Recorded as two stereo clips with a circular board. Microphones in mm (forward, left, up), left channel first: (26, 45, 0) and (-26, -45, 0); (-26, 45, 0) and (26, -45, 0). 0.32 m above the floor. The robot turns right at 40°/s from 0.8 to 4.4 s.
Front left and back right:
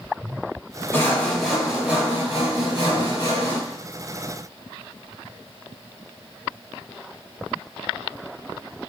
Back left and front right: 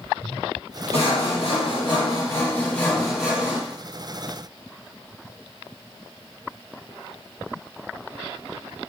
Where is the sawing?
125° left, 4 m; by 3.6 s 130° right, 4 m.